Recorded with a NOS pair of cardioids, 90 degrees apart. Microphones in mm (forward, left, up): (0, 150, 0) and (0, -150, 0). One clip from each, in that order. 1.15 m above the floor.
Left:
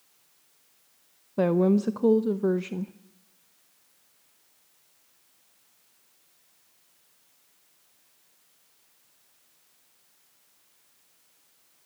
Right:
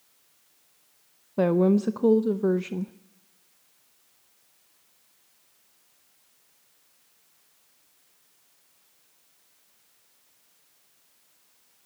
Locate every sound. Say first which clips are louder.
1.4 s a woman speaking: right 1 dB; 5° right, 0.6 m